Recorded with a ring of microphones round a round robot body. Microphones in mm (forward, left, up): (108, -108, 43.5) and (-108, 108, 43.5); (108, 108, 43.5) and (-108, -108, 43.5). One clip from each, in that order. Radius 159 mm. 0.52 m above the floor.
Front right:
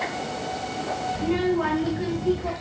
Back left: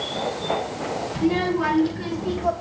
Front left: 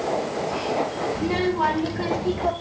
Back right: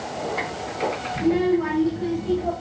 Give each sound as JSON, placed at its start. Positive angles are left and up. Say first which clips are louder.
{"t": 1.1, "sound": "a child speaking", "louder": "back left 3 dB, back right 3 dB", "azimuth_deg": 85, "distance_m": 2.0}